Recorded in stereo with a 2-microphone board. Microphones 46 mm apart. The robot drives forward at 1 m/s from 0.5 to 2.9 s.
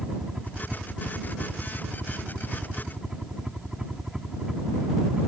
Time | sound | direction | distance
0.0 | a helicopter | 10° right (ahead or behind) | ?